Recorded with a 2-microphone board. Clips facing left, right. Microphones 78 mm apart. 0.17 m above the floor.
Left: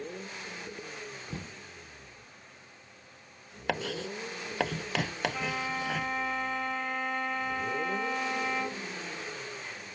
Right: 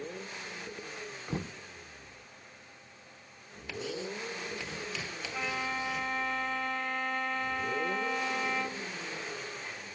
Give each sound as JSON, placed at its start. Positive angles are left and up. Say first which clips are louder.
{"t": 1.3, "sound": "knocking", "louder": "right 4 dB", "side_deg": -30}
{"t": 3.7, "sound": "writing", "louder": "left 4 dB", "side_deg": 70}
{"t": 5.3, "sound": "a violin", "louder": "left 1 dB", "side_deg": 5}